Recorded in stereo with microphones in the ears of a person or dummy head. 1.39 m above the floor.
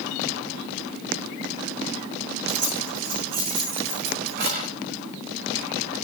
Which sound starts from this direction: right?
Keys jangling, at 2.5 s.